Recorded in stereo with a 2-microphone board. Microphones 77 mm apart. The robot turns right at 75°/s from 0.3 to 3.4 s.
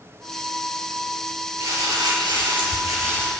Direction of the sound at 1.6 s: 145° right.